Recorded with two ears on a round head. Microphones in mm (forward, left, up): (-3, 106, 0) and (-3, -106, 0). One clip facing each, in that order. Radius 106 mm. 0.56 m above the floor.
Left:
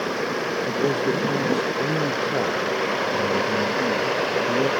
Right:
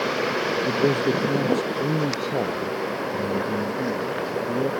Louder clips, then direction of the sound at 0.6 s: Right 1 dB; 20° right (ahead or behind).